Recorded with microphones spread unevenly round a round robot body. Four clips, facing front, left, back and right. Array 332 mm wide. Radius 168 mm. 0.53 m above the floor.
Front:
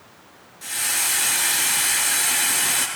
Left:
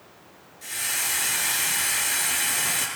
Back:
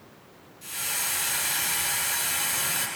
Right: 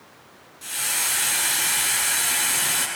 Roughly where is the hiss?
Ahead right.